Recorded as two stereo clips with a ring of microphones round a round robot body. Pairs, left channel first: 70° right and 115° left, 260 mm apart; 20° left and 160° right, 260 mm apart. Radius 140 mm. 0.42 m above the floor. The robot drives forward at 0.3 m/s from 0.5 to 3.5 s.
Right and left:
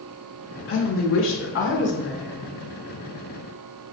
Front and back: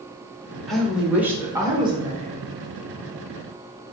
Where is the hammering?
No hammering in this recording.